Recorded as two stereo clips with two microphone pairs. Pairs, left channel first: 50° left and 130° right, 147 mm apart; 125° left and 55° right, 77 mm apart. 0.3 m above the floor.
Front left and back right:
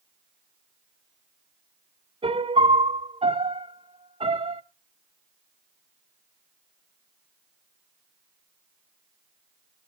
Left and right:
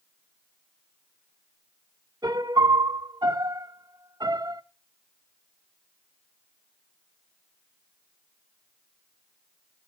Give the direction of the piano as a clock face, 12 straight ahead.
3 o'clock.